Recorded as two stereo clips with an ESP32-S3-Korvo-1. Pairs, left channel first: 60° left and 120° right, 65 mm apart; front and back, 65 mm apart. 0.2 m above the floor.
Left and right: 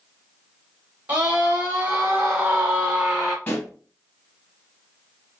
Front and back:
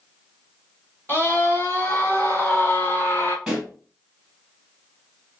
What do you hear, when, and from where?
1.1 s a scream: 60° right, 3 m; by 3.4 s 45° right, 1.8 m
3.5 s a pop: 100° left, 2.0 m